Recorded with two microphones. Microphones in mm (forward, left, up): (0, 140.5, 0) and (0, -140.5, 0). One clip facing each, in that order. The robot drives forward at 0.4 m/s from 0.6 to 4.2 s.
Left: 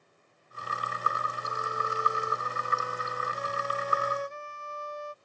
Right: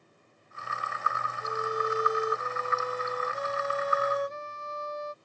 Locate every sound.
1.4 s a violin: 40° right (ahead or behind); by 5.1 s 45° right (ahead or behind)